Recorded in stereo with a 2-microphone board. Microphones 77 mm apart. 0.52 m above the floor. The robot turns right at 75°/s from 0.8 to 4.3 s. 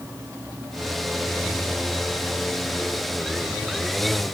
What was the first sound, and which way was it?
Only background noise.